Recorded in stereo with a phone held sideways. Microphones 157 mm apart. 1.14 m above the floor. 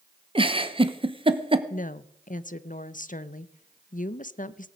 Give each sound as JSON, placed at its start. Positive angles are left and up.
{"t": 0.3, "sound": "a giggle", "side_deg": -35, "distance_m": 1.0}
{"t": 1.7, "sound": "a woman speaking", "side_deg": 60, "distance_m": 0.7}